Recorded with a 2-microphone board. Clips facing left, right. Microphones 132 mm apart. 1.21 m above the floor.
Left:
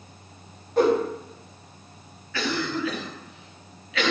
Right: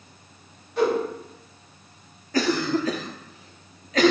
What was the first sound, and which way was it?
A whoosh, 45° left (ahead or behind).